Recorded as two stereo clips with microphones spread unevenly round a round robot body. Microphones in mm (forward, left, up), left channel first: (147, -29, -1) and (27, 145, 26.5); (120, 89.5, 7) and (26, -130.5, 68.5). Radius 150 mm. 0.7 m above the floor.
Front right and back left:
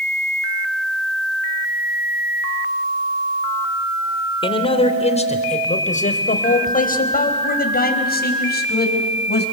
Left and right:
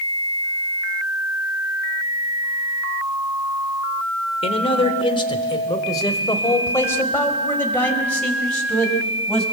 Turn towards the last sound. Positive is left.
turn(degrees=-20)